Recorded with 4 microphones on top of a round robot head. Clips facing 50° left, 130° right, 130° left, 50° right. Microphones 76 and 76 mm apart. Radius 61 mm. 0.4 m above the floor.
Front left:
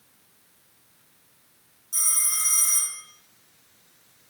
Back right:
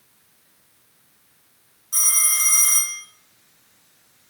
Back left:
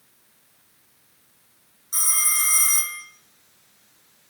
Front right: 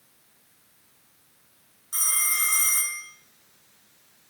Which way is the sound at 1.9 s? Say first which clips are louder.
Back right 6 dB, back left 1 dB; 155° right.